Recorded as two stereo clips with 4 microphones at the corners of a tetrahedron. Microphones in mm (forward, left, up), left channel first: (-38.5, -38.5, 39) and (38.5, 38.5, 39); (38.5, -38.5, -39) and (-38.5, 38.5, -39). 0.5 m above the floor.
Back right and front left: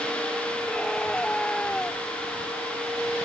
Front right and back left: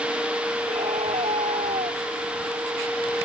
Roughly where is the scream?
Behind left.